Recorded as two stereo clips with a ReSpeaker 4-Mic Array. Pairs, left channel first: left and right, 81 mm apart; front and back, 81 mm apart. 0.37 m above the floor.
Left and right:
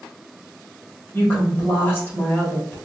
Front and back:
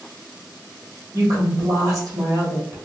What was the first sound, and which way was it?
A woman speaking, 150° left.